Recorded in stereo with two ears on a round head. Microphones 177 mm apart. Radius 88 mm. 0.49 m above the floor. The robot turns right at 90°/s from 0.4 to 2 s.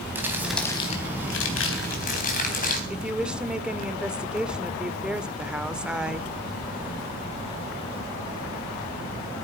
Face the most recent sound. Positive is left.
turn(degrees=-5)  # may be behind; listen again after turning